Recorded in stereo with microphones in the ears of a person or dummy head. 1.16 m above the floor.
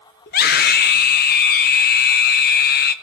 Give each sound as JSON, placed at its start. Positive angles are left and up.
{"t": 0.3, "sound": "a scream", "side_deg": 45, "distance_m": 0.8}